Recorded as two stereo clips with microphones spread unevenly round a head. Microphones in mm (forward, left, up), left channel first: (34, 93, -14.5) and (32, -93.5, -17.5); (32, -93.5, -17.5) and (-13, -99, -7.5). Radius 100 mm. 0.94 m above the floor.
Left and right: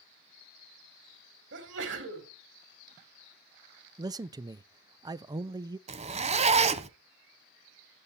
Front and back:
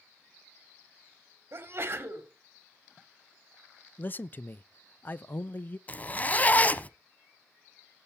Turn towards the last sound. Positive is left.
turn(degrees=-50)